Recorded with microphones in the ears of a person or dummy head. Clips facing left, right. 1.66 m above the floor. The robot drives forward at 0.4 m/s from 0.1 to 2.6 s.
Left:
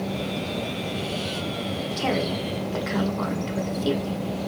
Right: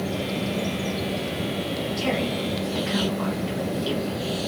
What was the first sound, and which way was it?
A woman speaking, 80° left.